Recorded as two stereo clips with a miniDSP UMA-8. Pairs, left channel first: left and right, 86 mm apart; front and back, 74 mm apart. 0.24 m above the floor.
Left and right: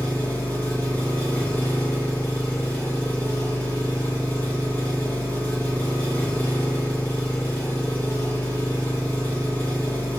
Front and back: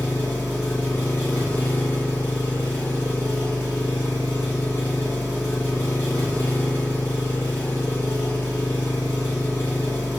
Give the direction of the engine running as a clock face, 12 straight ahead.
11 o'clock.